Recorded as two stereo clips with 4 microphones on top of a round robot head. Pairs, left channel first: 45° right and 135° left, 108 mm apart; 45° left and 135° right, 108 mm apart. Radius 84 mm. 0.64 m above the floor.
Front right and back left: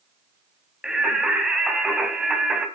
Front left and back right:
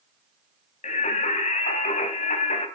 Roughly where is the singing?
Ahead left.